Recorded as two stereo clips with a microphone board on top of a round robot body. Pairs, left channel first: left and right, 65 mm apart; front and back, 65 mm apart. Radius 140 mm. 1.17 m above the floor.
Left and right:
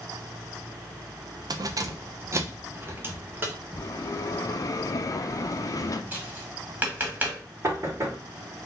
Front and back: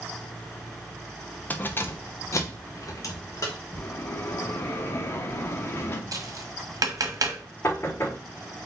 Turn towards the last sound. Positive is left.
turn(degrees=-50)